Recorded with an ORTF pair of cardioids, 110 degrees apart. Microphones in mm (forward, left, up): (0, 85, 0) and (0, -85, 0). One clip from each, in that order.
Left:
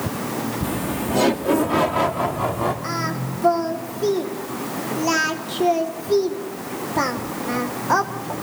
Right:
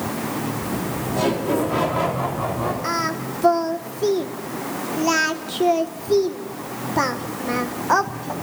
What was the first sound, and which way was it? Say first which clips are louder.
Laughter: left 1 dB; 55° left.